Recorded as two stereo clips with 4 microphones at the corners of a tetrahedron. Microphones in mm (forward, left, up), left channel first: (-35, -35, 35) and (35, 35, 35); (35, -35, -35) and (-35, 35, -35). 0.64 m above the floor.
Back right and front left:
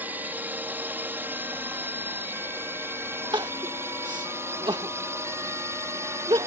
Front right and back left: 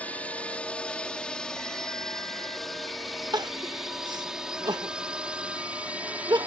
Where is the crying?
85° left.